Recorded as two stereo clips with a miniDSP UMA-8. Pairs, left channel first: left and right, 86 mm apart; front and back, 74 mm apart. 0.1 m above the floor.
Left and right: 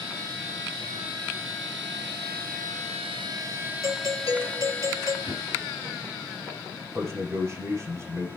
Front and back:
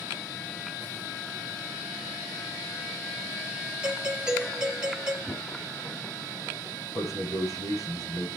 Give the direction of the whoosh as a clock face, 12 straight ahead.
3 o'clock.